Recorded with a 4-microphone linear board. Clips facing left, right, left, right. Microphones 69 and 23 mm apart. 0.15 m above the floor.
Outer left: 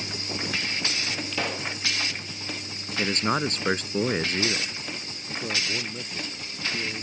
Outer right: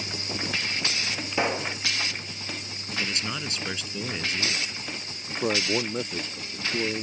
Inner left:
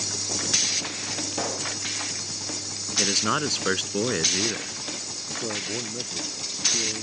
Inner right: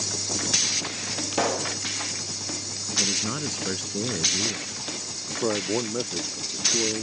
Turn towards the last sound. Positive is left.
turn(degrees=-40)  # may be behind; listen again after turning